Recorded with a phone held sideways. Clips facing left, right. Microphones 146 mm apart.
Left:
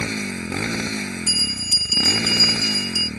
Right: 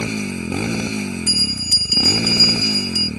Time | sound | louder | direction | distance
0.0 | a motorcycle | right 4 dB | 15° right (ahead or behind) | ?
1.3 | a bell | right 4 dB | 20° left (ahead or behind) | ?